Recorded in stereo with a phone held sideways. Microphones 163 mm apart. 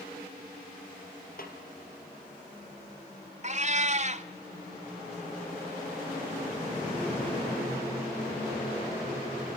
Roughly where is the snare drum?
Left.